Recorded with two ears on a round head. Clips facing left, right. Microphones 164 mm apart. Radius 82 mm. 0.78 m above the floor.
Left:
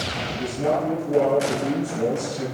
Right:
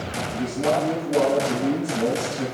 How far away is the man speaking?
About 6.5 m.